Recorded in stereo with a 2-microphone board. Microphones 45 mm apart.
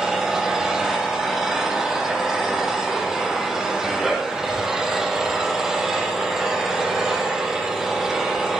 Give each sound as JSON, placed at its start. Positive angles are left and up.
{"t": 0.0, "sound": "an engine running", "side_deg": -10, "distance_m": 8.5}